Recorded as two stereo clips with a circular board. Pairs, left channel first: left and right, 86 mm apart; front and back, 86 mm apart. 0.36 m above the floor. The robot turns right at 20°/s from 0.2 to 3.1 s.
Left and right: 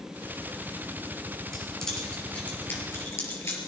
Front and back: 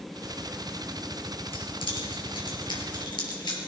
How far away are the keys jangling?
About 4.5 m.